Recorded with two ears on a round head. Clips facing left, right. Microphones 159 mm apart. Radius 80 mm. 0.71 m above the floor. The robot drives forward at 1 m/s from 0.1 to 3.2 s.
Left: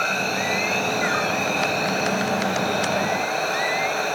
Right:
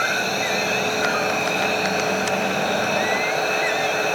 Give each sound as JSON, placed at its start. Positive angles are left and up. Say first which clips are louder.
{"t": 0.0, "sound": "an insect", "louder": "right 1 dB", "side_deg": -10, "distance_m": 0.9}